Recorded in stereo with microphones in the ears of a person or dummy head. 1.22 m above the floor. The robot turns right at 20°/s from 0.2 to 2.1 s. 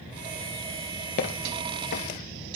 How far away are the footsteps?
About 1.3 m.